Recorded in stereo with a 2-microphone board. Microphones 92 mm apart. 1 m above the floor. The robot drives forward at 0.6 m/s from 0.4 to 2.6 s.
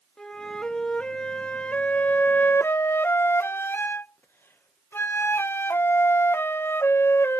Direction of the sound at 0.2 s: 10° left (ahead or behind).